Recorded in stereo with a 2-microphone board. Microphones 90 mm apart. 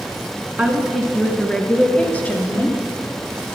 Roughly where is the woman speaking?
Centre.